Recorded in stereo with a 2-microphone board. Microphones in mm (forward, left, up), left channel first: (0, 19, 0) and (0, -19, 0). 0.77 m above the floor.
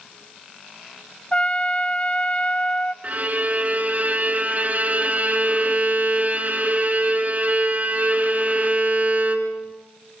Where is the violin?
45° right (ahead or behind), 2.5 m.